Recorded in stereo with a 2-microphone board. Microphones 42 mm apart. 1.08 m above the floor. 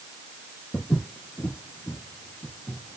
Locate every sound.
0.7 s footsteps: 60° left (ahead or behind), 2.5 m; by 3.0 s 45° left (ahead or behind), 1.4 m